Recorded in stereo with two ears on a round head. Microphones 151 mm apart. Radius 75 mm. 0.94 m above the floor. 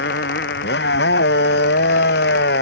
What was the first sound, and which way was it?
A motorcycle, 65° left (ahead or behind).